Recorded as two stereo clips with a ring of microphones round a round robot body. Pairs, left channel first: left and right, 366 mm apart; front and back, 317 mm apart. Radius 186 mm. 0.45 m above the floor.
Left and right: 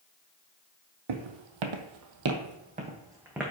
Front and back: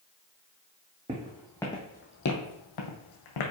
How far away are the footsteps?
About 1.0 m.